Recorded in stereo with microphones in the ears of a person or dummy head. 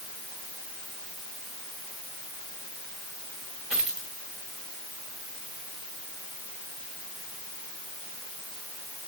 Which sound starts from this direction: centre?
A dropped coin, at 3.7 s.